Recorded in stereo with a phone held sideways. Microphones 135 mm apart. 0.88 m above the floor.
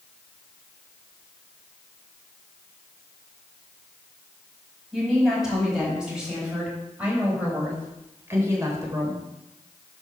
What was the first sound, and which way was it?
A woman speaking, 5° right (ahead or behind).